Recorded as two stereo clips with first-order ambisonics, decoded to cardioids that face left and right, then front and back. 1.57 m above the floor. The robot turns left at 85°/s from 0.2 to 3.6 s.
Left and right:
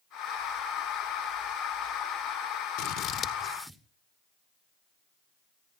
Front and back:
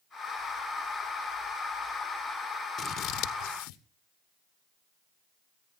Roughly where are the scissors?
Ahead left.